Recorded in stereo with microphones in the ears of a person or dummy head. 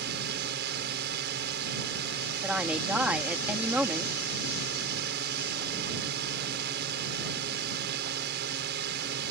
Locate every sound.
0.0 s a drone: 60° right (ahead or behind)
2.4 s a woman speaking: 5° right (ahead or behind)